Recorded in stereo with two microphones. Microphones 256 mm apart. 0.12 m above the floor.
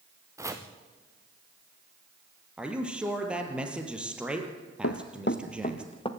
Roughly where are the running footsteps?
Left.